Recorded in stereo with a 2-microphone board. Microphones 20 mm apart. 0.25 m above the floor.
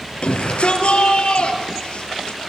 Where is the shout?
75° left (ahead or behind), 6 m; by 2.4 s 70° left (ahead or behind), 6.5 m.